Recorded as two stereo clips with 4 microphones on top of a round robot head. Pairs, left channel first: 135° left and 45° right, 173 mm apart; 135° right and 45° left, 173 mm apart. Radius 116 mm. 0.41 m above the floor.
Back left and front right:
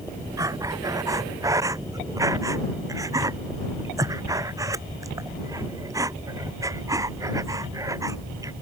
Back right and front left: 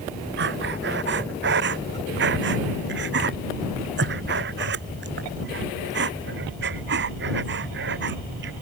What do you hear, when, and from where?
0.4 s breathing: 30° left